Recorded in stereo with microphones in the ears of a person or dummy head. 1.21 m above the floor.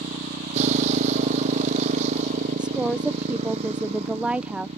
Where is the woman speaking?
5° right (ahead or behind).